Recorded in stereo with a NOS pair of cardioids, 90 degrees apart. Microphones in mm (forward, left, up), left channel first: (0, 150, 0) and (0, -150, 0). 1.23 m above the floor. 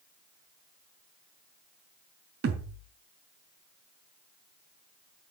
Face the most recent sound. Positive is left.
turn(degrees=-50)